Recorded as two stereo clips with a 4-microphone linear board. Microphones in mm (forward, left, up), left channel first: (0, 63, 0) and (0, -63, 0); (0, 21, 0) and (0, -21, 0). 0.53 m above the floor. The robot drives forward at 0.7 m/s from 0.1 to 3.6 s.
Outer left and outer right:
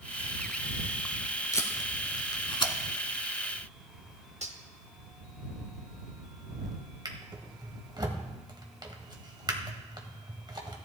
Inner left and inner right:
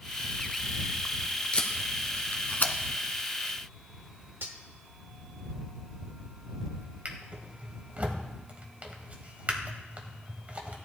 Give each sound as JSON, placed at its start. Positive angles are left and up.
{"t": 1.5, "sound": "tape being pulled", "side_deg": 25, "distance_m": 1.6}
{"t": 4.4, "sound": "cutlery clinking", "side_deg": -60, "distance_m": 1.1}
{"t": 7.0, "sound": "a drawer", "side_deg": -35, "distance_m": 1.6}